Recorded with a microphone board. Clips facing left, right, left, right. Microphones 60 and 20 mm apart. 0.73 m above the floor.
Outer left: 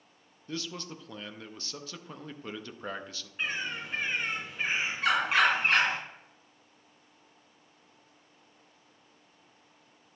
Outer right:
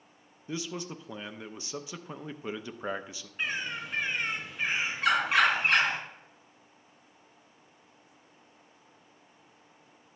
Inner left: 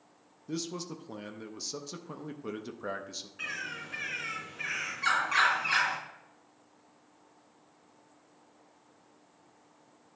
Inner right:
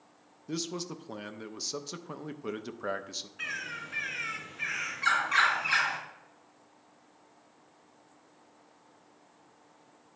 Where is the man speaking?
15° right (ahead or behind), 0.5 m.